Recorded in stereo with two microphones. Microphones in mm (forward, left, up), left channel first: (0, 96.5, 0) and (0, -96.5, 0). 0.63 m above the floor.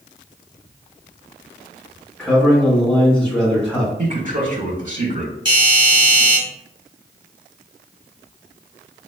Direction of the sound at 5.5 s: 25° right (ahead or behind).